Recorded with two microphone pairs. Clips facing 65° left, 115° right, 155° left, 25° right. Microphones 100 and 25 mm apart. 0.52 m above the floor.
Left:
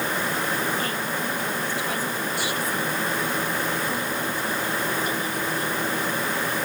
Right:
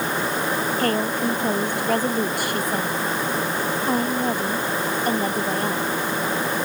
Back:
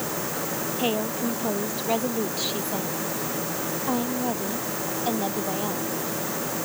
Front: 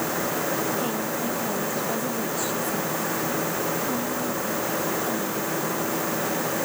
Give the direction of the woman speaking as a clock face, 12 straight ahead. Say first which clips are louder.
Right 6 dB, back 1 dB; 5 o'clock.